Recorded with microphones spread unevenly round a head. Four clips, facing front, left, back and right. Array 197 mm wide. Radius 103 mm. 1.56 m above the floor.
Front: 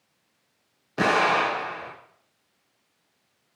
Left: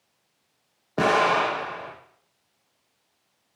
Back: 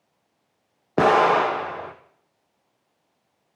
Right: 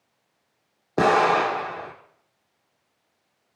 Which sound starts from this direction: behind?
An explosion, at 1.0 s.